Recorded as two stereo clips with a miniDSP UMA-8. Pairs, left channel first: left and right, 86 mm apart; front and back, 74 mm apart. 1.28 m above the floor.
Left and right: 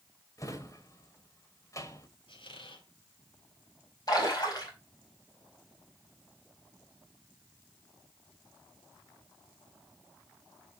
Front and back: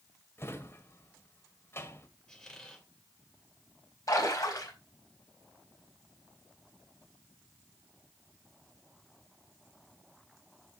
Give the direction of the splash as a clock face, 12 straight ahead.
10 o'clock.